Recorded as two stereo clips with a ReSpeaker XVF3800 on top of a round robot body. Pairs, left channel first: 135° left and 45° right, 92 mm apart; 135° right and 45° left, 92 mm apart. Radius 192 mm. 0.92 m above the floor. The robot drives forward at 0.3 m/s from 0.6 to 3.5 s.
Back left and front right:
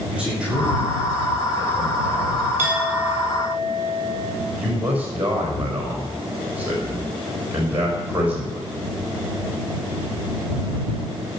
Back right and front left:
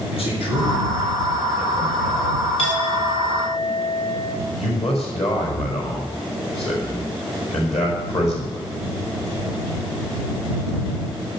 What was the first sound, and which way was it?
A man speaking, 125° right.